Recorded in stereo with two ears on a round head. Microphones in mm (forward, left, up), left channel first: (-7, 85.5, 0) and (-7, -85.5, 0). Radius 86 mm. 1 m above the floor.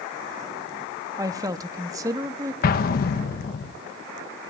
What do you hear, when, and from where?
1.2 s a woman speaking: 20° right (ahead or behind), 1.0 m
2.6 s an explosion: 50° left (ahead or behind), 1.2 m